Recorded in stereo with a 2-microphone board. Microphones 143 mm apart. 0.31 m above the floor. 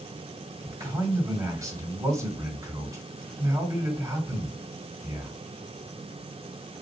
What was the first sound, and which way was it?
A man speaking, 25° right (ahead or behind).